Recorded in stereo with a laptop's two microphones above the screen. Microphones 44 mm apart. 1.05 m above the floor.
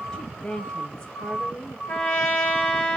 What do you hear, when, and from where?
0.1 s a woman speaking: 20° left (ahead or behind), 1.5 m
1.9 s a trumpet: 30° left (ahead or behind), 4 m